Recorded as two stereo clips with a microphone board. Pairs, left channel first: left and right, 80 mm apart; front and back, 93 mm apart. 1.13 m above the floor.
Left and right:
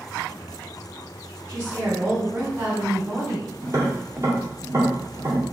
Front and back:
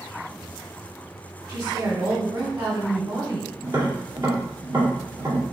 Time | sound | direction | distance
1.5 | a woman speaking | 150° right | 2 m
3.6 | tapping | 135° right | 2.5 m